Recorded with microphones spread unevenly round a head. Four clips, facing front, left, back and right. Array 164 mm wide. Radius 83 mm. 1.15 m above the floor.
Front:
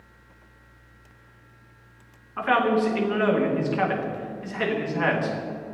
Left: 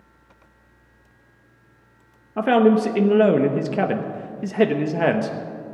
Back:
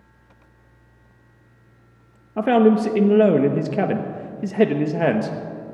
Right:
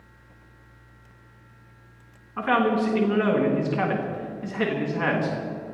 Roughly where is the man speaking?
Behind left.